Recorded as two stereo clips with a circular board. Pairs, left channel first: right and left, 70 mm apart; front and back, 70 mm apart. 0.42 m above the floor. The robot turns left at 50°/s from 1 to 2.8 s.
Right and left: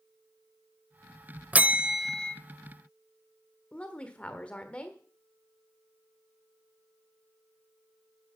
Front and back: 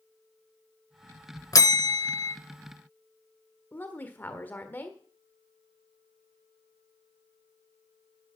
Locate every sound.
1.5 s a bell: 25° left, 0.8 m; by 2.4 s 15° right, 0.8 m
3.7 s a woman speaking: 35° right, 1.4 m